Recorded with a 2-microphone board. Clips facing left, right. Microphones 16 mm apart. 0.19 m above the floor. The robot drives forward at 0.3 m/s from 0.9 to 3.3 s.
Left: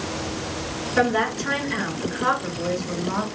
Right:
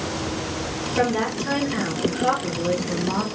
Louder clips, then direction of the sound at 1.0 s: Left 2 dB; 60° left (ahead or behind).